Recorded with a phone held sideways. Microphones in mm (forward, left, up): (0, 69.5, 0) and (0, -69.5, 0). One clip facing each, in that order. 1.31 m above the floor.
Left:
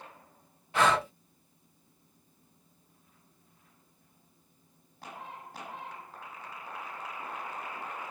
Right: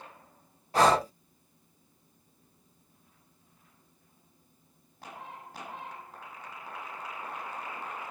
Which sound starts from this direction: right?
Breathing, at 0.7 s.